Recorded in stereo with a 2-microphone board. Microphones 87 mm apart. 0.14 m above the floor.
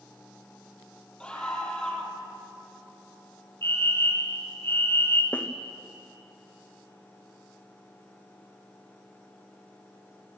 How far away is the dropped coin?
I don't hear a dropped coin.